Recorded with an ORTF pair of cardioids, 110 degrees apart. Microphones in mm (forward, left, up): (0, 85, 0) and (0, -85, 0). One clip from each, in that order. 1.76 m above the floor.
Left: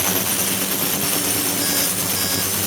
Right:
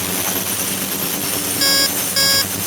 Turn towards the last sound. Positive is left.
turn(degrees=-65)